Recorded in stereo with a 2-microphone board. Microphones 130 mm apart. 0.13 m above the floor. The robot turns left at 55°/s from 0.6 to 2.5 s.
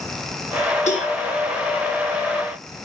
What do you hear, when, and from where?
0.9 s a cowbell: 60° left (ahead or behind), 4.5 m; by 1.1 s 50° left (ahead or behind), 4.5 m